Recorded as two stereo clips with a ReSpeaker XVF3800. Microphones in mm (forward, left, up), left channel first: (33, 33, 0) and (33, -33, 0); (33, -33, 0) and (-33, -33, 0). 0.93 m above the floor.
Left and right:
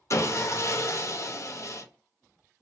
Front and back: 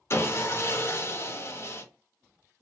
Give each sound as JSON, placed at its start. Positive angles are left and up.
{"t": 0.1, "sound": "sawing", "azimuth_deg": 45, "distance_m": 0.5}